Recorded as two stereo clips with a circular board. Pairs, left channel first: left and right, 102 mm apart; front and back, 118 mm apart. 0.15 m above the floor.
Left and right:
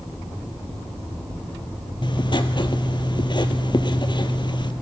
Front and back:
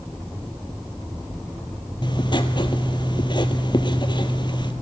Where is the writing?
50° left, 0.9 m.